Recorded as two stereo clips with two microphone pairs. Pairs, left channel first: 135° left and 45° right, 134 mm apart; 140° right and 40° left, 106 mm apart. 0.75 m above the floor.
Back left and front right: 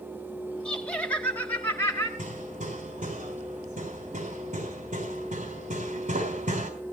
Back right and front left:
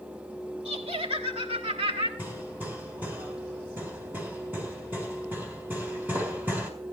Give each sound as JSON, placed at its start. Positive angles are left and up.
{"t": 0.7, "sound": "laughter", "azimuth_deg": 50, "distance_m": 3.5}
{"t": 2.2, "sound": "hammering", "azimuth_deg": -30, "distance_m": 3.5}